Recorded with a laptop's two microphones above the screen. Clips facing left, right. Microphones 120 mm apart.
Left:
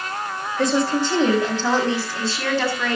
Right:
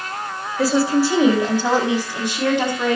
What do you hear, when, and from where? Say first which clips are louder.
0.6 s a woman speaking: right 3 dB; 5° right (ahead or behind), 6 m; by 3.0 s 20° right (ahead or behind), 8 m